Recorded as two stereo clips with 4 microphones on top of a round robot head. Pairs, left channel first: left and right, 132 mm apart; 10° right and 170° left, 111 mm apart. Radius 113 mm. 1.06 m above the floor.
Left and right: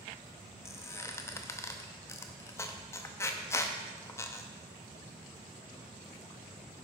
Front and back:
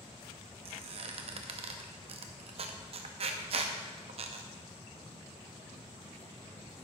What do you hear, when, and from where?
0.7 s a squeak: 155° left, 0.5 m